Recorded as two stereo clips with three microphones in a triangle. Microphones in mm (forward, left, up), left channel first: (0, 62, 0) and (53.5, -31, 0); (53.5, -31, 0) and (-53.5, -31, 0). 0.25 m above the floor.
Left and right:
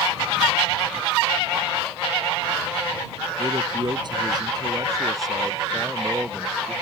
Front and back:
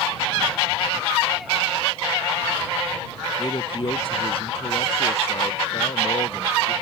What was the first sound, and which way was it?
A man speaking, 35° right.